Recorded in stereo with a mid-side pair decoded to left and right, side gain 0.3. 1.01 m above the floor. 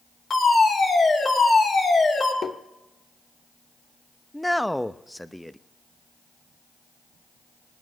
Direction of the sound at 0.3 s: 60° left.